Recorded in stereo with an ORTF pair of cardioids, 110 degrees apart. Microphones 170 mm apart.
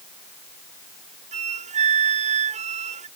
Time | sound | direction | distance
1.3 | a flute | 45° right | ?